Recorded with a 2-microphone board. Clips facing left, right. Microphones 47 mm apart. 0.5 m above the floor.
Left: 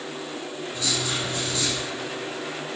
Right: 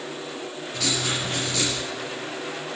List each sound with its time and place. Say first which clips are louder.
0.7 s writing: right 2 dB; 75° right (ahead or behind), 6 m